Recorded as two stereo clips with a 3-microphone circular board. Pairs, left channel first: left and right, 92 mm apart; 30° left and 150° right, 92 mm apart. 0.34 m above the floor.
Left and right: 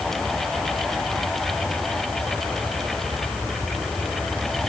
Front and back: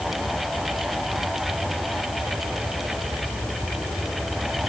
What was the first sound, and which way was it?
Only background noise.